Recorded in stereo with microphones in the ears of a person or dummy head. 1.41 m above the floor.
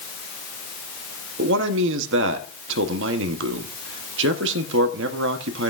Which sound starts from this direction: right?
A man speaking, at 1.4 s.